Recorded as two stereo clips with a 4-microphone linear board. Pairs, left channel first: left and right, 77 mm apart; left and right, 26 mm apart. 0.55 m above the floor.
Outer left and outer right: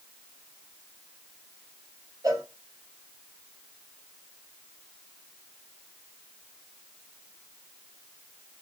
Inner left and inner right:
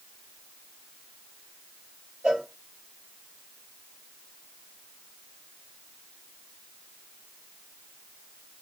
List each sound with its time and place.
2.2 s a cowbell: 50° right (ahead or behind), 2.5 m